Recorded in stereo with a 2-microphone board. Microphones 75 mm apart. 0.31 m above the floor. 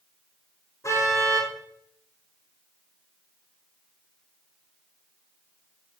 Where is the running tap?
No running tap in this recording.